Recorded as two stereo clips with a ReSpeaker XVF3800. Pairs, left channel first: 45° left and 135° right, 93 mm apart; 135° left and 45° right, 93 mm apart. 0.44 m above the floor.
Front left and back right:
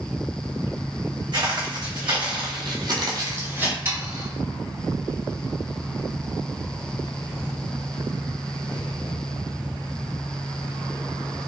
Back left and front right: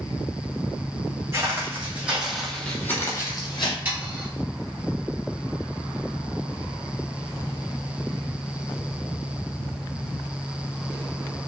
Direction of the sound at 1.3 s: 105° right.